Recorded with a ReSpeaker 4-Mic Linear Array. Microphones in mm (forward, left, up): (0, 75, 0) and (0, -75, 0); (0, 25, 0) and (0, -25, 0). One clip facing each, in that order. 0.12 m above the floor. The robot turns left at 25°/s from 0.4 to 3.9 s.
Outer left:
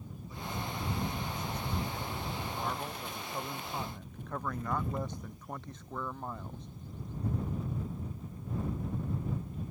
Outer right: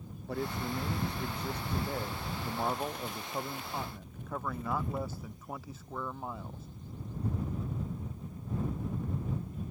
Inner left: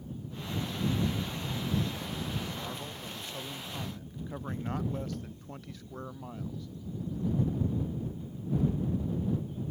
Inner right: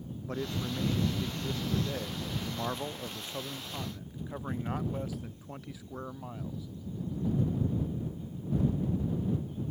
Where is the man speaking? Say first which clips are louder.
Outer right 5 dB, inner right 3 dB; 85° right; by 6.7 s 175° right.